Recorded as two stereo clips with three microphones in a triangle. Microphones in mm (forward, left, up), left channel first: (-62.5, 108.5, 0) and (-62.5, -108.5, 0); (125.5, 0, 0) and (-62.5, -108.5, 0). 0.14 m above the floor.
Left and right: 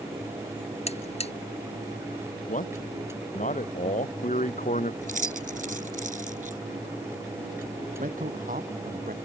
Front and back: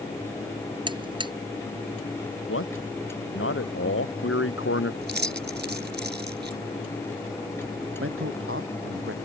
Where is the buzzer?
145° left.